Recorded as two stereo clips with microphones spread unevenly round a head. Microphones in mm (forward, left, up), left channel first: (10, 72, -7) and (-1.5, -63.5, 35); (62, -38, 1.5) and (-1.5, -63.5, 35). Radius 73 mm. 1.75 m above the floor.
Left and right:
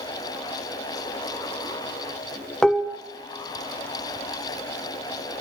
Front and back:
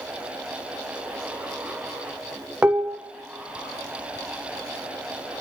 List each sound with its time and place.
2.6 s dishes clattering: 170° right, 0.9 m